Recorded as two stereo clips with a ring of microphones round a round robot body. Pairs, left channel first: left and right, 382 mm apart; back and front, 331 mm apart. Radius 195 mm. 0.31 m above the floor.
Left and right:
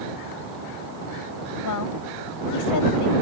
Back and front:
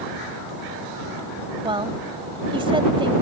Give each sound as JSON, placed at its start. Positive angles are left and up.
{"t": 1.6, "sound": "a woman speaking", "azimuth_deg": 70}